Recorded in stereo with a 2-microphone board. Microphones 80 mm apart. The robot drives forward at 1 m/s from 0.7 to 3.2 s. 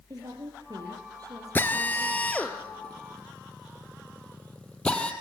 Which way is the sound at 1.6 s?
25° left (ahead or behind).